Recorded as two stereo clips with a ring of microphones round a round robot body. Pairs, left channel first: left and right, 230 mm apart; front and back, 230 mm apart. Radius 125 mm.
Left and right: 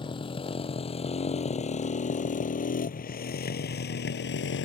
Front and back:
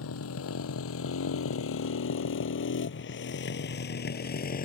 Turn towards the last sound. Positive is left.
turn(degrees=50)